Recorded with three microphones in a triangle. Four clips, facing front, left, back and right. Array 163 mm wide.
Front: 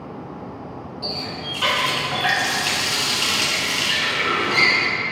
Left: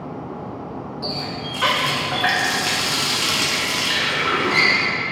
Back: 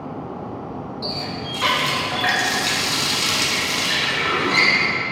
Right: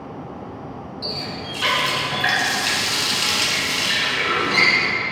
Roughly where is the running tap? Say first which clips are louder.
Left 1 dB, even; left.